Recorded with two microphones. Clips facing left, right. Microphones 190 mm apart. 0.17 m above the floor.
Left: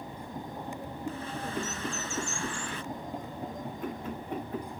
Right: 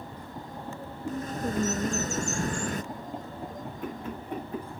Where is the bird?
45° right (ahead or behind).